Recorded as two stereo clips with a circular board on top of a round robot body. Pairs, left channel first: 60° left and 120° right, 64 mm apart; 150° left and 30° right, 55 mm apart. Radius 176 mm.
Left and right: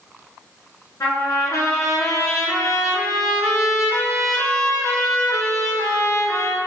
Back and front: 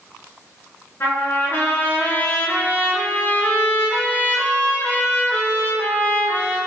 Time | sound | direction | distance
1.0 | a trumpet | 95° left | 2.5 m